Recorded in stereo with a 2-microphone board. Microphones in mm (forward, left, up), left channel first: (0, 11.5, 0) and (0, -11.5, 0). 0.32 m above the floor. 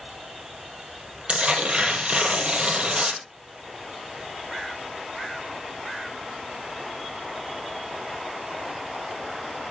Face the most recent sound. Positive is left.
turn(degrees=-55)  # may be behind; listen again after turning